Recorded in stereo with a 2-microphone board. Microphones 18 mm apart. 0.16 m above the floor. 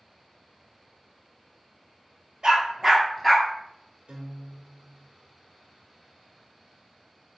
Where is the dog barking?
45° right (ahead or behind), 1.4 m; by 3.5 s 10° left (ahead or behind), 1.1 m.